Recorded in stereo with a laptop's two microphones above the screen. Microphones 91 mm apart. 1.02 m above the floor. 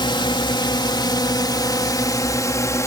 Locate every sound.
0.0 s a drone: 60° left (ahead or behind); by 2.9 s 35° left (ahead or behind)